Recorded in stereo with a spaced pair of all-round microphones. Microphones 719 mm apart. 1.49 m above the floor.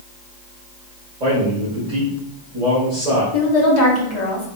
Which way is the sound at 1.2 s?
65° right (ahead or behind).